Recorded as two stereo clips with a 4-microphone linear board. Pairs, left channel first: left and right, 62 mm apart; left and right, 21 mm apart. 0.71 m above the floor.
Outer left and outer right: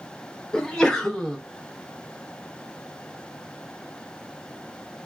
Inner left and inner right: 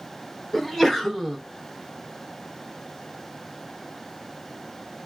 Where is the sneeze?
10° left (ahead or behind), 0.8 m.